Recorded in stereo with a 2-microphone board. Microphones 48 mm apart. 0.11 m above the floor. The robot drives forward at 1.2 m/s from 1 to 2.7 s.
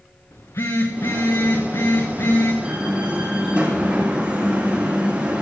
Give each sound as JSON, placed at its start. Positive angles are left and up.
{"t": 0.3, "sound": "a phone buzzing", "side_deg": 85, "distance_m": 3.5}
{"t": 2.6, "sound": "a door slam", "side_deg": -25, "distance_m": 4.0}